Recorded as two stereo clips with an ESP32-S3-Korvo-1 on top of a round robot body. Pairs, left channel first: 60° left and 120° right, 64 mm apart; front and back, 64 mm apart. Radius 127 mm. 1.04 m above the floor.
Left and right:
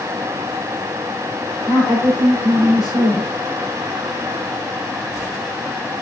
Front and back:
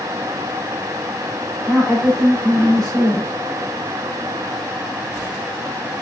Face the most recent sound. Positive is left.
turn(degrees=70)